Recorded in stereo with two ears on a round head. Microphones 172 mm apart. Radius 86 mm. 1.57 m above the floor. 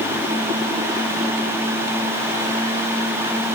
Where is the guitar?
No guitar in this recording.